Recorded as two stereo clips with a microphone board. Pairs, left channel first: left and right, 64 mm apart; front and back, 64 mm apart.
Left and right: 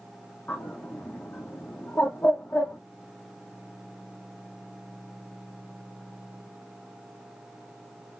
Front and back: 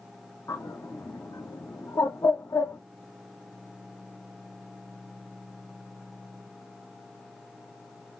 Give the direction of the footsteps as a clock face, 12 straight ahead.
I don't hear footsteps.